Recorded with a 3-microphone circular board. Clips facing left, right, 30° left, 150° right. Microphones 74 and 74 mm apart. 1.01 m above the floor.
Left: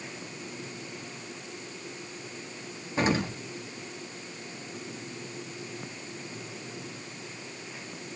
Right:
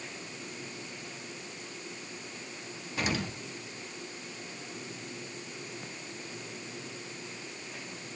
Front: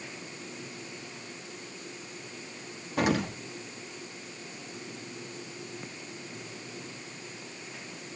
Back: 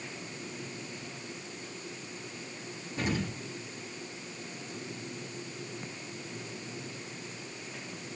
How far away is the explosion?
About 1.2 m.